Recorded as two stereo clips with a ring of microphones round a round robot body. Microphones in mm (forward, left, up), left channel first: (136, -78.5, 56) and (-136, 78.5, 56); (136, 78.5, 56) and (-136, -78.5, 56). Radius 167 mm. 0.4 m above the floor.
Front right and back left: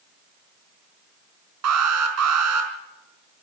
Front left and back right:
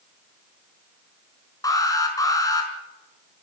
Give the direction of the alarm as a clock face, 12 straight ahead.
8 o'clock.